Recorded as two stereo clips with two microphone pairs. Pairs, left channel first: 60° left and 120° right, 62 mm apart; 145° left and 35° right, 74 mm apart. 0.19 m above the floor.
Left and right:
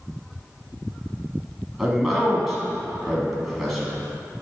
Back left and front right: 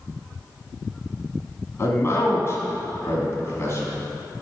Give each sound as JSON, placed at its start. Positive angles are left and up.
{"t": 1.8, "sound": "a man speaking", "azimuth_deg": 155, "distance_m": 1.5}